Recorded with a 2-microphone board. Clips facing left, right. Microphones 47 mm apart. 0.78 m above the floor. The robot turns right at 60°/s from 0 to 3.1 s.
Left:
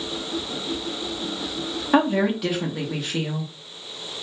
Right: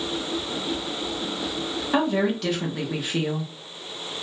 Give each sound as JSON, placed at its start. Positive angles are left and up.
{"t": 1.9, "sound": "a woman speaking", "side_deg": 20, "distance_m": 0.7}